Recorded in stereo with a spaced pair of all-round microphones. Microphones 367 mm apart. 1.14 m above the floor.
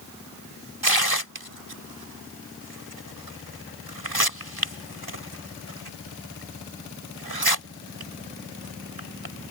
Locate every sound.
0.8 s tearing paper: 80° right